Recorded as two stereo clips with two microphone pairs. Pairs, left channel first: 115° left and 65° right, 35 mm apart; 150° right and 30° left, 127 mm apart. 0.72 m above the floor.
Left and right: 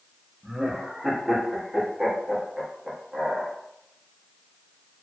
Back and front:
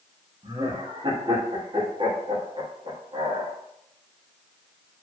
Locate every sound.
0.4 s laughter: 15° left, 0.9 m